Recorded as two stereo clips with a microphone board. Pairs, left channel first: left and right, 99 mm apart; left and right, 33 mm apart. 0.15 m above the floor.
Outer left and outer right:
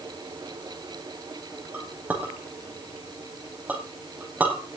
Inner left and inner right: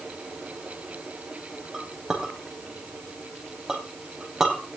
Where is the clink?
15° right (ahead or behind), 4.5 m.